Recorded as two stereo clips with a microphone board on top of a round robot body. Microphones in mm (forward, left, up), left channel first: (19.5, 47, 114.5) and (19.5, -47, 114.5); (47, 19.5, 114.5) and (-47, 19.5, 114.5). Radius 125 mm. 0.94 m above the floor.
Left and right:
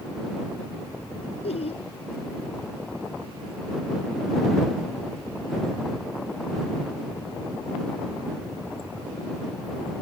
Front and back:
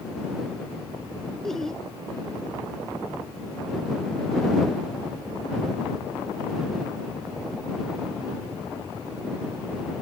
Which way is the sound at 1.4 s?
85° left.